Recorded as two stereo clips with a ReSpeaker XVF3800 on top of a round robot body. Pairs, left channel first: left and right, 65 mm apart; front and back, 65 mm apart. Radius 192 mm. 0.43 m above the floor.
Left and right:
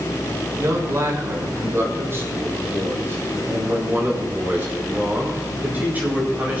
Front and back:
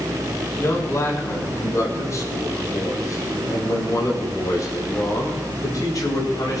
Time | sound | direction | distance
0.6 | a man speaking | 45° right | 7 m